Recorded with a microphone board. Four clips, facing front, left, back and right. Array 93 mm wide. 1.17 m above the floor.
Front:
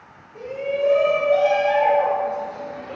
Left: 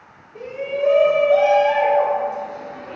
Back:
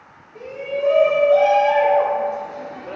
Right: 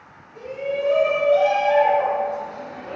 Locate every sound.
0.3 s a shout: 90° left, 1.6 m; by 3.0 s 160° right, 1.1 m